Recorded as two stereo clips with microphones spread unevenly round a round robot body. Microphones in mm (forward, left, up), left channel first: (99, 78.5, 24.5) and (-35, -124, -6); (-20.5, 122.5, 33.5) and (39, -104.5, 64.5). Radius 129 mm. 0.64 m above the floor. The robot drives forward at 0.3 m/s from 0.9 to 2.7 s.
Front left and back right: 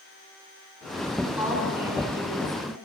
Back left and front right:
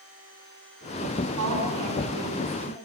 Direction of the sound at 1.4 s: 50° right.